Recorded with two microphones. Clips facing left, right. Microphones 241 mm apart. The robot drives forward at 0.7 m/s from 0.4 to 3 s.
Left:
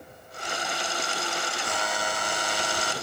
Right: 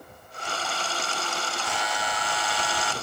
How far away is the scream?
I don't hear a scream.